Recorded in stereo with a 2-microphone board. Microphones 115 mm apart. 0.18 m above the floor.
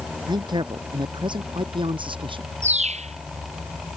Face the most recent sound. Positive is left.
turn(degrees=-75)  # may be behind; listen again after turning